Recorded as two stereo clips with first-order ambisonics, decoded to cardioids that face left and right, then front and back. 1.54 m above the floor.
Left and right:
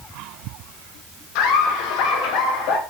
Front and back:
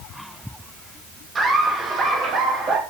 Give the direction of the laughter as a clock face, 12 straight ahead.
8 o'clock.